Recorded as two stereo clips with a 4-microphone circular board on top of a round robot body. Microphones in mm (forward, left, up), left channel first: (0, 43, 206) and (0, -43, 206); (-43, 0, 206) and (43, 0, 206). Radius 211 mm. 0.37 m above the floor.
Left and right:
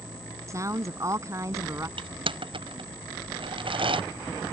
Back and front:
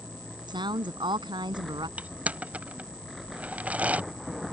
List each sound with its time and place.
0.5 s a woman speaking: 35° right
2.0 s crushing: 75° right